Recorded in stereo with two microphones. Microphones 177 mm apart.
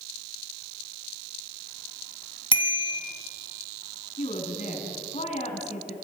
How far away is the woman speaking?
About 4.5 m.